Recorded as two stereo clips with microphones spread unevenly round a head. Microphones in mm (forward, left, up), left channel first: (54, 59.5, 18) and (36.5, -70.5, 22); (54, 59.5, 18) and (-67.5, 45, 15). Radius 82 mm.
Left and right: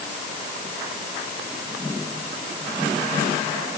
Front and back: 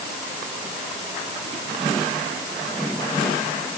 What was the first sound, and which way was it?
Only background noise.